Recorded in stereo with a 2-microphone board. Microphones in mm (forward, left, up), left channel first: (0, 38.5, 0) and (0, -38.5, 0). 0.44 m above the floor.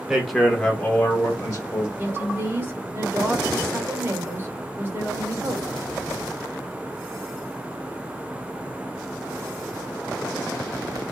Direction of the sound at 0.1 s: 5° right (ahead or behind).